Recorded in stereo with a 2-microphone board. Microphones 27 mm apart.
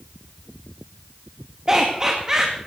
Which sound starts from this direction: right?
Laughter, at 1.7 s.